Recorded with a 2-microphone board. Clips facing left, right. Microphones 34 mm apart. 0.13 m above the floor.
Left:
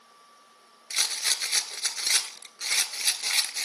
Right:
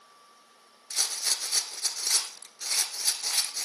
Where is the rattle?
55° left (ahead or behind), 0.8 m.